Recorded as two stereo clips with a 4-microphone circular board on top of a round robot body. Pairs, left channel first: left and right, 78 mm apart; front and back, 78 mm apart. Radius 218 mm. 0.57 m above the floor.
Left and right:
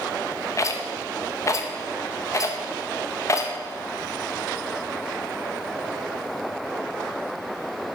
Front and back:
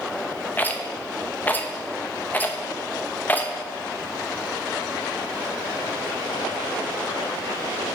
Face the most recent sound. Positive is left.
turn(degrees=60)